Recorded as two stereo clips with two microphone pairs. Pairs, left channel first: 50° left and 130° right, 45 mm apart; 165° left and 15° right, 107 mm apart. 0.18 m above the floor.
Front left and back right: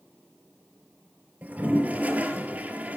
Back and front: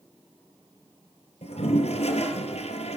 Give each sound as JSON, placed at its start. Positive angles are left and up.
{"t": 1.4, "sound": "a toilet flushing", "azimuth_deg": 175, "distance_m": 3.5}